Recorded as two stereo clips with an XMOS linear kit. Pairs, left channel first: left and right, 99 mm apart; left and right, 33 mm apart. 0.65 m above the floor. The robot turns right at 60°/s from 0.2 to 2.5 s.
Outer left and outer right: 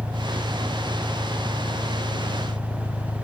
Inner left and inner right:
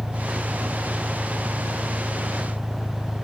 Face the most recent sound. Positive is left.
turn(degrees=80)